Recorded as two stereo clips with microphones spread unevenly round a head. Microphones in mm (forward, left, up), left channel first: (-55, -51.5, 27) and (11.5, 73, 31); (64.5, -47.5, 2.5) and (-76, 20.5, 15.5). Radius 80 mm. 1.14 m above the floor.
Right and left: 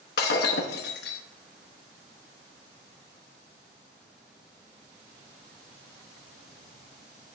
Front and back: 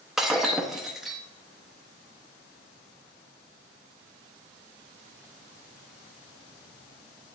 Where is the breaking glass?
120° right, 0.8 m.